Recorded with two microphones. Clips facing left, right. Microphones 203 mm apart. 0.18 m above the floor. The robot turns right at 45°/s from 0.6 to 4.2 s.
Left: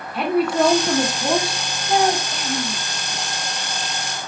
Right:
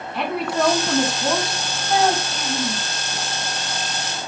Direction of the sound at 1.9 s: Centre (ahead or behind).